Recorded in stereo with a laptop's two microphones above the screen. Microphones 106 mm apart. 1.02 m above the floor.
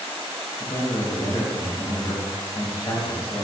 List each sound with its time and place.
0.6 s a man speaking: 40° left (ahead or behind), 1.7 m